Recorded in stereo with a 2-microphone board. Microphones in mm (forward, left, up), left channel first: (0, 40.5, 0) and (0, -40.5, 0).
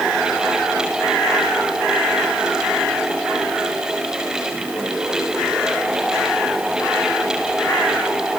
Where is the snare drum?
No snare drum in this recording.